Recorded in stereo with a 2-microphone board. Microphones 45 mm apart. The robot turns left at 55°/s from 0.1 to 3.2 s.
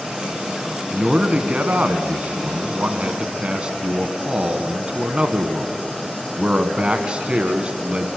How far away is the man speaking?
About 1.5 m.